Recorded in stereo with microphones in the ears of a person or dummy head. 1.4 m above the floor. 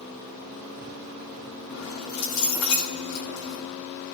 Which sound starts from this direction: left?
Keys jangling, at 1.7 s.